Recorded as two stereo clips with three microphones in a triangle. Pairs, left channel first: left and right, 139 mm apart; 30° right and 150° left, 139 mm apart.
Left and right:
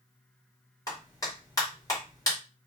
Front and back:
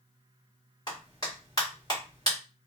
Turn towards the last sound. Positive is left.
turn(degrees=25)